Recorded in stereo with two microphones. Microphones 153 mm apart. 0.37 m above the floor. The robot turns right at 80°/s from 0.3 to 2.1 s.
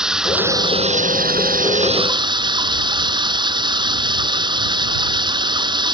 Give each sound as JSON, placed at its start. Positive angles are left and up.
{"t": 0.0, "sound": "running water", "azimuth_deg": -175}